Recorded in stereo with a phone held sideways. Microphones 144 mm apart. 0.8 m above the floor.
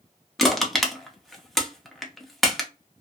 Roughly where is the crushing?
Centre.